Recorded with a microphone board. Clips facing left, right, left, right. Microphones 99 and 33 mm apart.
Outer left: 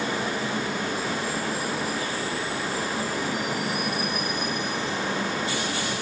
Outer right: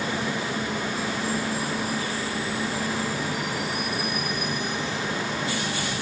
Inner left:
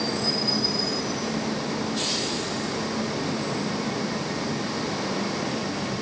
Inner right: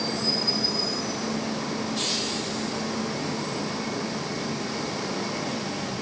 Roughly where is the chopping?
I don't hear chopping.